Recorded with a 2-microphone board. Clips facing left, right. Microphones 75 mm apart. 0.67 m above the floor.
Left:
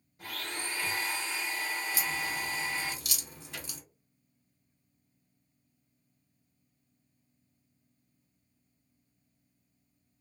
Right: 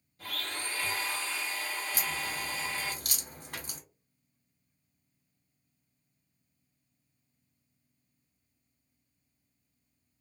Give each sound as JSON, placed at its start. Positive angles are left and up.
{"t": 0.2, "sound": "a blender", "side_deg": 20, "distance_m": 1.8}
{"t": 1.9, "sound": "a crack", "side_deg": -45, "distance_m": 1.1}
{"t": 3.5, "sound": "a microwave", "side_deg": -55, "distance_m": 1.3}